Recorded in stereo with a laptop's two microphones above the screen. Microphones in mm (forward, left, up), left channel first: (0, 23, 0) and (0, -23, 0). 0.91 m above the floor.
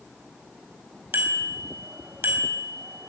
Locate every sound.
1.1 s a bicycle bell: 55° right (ahead or behind), 4.5 m